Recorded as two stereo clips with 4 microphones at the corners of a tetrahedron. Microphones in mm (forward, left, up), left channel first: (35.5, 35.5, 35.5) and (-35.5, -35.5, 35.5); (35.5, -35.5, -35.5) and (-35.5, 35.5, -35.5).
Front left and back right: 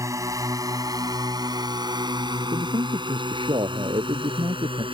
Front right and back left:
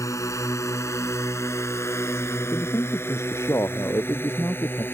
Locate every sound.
0.0 s a drone: 90° right; by 5.0 s 110° right
2.5 s a man speaking: 105° right